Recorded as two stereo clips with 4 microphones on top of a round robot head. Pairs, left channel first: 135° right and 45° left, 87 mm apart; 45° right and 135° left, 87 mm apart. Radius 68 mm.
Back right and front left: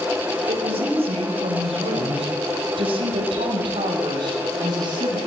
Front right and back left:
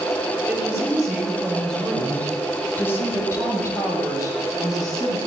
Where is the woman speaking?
55° left, 5 m; by 5.2 s straight ahead, 8 m.